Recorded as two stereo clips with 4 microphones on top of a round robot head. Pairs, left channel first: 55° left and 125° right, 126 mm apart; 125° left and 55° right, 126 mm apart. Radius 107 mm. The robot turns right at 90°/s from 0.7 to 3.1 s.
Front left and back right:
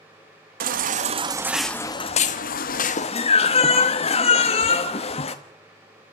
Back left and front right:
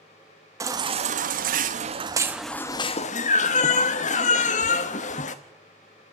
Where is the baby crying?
120° right, 0.9 m; by 5.3 s 95° left, 0.9 m.